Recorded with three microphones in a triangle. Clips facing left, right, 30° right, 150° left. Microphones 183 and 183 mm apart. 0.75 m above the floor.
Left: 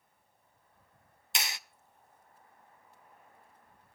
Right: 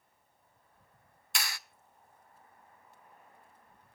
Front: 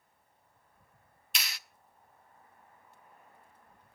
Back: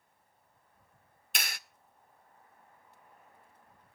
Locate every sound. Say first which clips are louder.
1.4 s a clap: even, back 2 dB; 150° left, 0.6 m